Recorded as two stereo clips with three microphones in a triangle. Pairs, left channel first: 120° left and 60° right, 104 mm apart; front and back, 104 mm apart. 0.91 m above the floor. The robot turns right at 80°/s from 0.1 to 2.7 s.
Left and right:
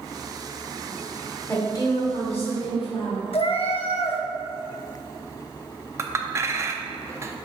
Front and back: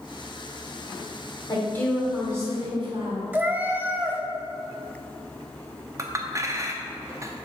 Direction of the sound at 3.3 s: 110° left.